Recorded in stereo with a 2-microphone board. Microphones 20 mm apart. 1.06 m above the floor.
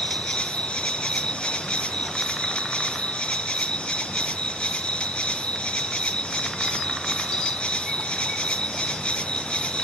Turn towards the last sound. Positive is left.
turn(degrees=55)  # may be behind; listen again after turning